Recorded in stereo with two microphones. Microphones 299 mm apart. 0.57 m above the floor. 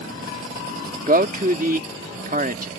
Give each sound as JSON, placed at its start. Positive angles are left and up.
{"t": 1.1, "sound": "a man speaking", "side_deg": -30}